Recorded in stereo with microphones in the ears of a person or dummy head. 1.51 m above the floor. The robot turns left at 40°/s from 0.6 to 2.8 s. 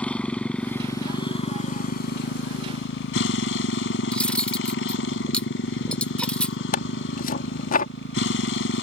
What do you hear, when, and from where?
0.0 s a motorcycle: 170° left; by 8.8 s 80° left
4.1 s cutlery clinking: 5° left (ahead or behind)
6.7 s tearing paper: 55° left (ahead or behind)